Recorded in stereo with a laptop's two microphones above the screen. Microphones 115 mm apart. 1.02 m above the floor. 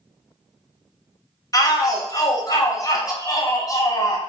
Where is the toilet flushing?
No toilet flushing in this recording.